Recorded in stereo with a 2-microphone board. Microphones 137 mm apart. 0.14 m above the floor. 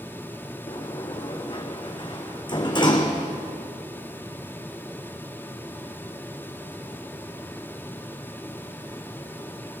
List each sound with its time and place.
0.7 s a sliding door: 35° left (ahead or behind), 1.7 m